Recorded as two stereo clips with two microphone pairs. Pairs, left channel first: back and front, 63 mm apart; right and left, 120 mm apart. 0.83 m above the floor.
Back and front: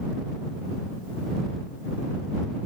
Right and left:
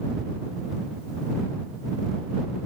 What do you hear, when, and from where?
Only background noise.